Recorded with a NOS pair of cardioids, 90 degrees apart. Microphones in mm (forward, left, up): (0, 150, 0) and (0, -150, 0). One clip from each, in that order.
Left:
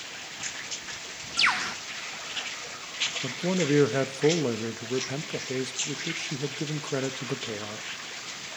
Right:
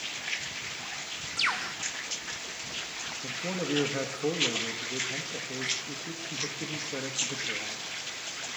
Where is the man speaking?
50° left, 1.5 m.